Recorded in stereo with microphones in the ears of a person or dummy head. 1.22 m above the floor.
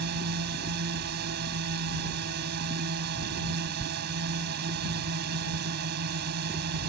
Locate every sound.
0.0 s a drone: 60° right (ahead or behind)